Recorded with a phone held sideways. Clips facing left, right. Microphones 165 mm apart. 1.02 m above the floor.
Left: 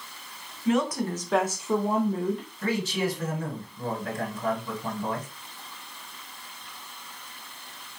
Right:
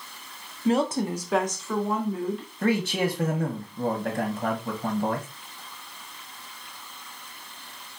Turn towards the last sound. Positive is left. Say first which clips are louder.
# right 4 dB
turn(degrees=-60)  # may be behind; listen again after turning